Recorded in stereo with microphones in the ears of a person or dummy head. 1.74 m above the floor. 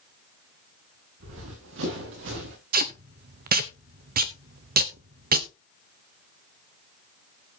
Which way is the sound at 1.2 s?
75° right (ahead or behind).